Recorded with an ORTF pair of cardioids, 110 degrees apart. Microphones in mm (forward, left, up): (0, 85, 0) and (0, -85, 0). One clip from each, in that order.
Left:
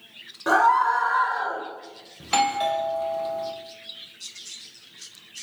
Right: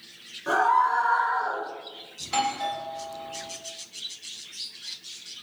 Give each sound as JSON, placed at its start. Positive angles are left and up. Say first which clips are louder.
{"t": 0.5, "sound": "a scream", "louder": "left 3 dB", "azimuth_deg": 55, "distance_m": 3.0}
{"t": 2.2, "sound": "a doorbell", "louder": "left 4 dB", "azimuth_deg": 40, "distance_m": 1.0}